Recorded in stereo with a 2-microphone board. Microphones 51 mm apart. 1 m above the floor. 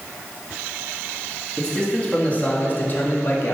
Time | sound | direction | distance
1.6 | a man speaking | 15° left (ahead or behind) | 1.8 m